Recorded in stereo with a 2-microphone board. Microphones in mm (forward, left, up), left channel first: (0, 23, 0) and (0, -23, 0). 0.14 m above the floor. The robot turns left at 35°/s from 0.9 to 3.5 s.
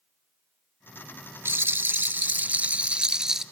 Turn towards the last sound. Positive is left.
turn(degrees=-170)